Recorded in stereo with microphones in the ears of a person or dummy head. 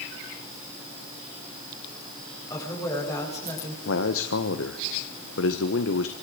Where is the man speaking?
65° left (ahead or behind), 1.3 m.